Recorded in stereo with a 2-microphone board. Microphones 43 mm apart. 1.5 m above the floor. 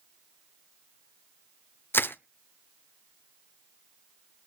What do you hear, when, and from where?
1.9 s crushing: 55° left (ahead or behind), 0.7 m